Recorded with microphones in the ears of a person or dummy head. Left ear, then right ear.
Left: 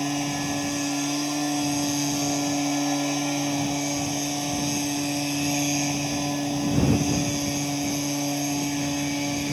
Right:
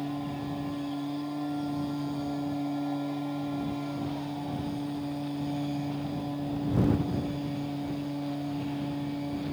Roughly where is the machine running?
Left.